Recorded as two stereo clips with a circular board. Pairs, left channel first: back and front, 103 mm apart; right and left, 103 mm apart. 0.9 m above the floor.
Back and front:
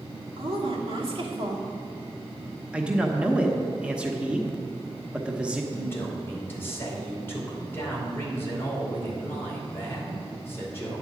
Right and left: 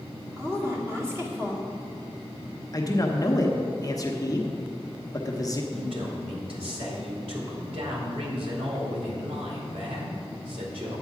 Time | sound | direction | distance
0.4 | a woman speaking | 30° left | 2.5 m
2.7 | a man speaking | 75° right | 1.1 m
5.7 | a man speaking | 115° left | 2.5 m